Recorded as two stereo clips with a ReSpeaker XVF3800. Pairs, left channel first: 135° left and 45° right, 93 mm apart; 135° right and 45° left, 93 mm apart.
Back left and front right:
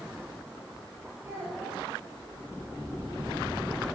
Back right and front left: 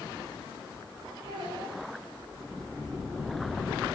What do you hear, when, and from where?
1.2 s a child speaking: 15° left, 8 m